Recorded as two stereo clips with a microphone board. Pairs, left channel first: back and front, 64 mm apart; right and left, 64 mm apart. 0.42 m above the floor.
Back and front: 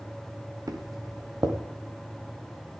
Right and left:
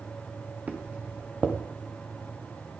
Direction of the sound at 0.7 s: 25° left.